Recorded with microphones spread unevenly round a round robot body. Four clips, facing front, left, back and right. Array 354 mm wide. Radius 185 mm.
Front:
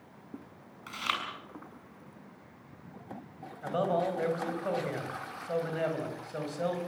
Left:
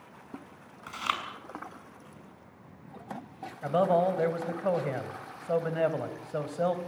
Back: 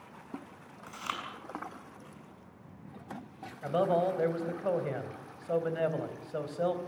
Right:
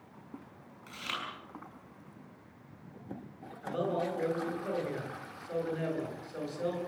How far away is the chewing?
About 7 m.